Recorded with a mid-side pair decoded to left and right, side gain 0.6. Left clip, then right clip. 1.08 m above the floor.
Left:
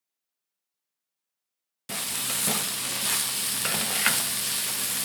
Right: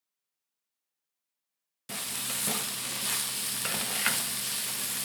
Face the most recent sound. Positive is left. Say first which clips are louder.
# left 4 dB
turn(degrees=20)